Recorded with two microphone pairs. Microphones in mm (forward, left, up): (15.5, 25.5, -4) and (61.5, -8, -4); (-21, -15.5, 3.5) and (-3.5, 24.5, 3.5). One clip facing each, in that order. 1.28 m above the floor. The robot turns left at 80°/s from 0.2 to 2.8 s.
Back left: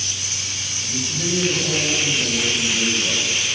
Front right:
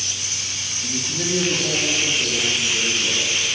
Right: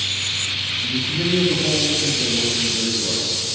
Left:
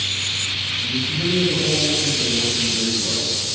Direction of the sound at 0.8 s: 50° right.